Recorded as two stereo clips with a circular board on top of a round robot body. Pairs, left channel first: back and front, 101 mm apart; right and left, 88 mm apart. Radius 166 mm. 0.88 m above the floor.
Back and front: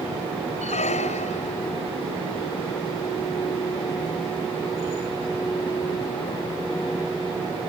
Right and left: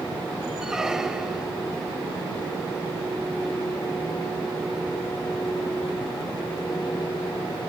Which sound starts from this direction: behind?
A squeak, at 0.6 s.